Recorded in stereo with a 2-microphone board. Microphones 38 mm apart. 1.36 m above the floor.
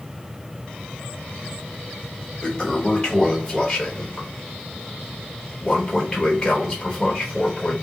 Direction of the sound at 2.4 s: 25° left (ahead or behind).